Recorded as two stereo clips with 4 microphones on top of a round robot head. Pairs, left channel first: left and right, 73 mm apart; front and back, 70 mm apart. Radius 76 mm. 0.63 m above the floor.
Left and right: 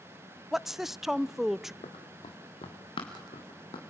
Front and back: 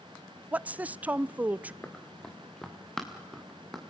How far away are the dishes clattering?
No dishes clattering in this recording.